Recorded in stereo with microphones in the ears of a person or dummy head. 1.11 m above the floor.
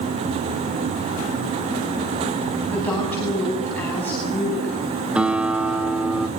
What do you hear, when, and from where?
2.7 s a woman speaking: 10° left (ahead or behind), 9.5 m
5.2 s a guitar: 5° right (ahead or behind), 1.3 m